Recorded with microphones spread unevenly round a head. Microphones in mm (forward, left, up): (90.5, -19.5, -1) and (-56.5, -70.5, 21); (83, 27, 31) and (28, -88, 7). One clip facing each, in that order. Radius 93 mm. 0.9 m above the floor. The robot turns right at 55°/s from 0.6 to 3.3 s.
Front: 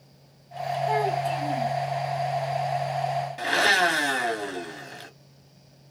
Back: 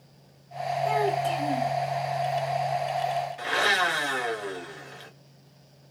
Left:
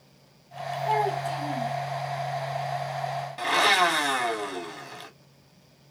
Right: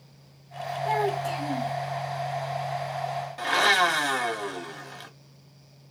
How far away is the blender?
About 1.6 m.